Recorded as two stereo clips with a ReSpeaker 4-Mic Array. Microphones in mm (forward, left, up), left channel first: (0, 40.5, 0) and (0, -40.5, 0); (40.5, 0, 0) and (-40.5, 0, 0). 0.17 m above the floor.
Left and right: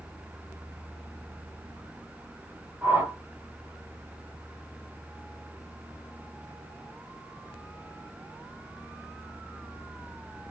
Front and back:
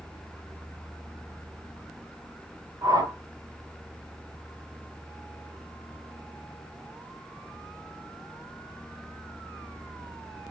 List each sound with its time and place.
2.8 s a whoosh: 150° right, 0.8 m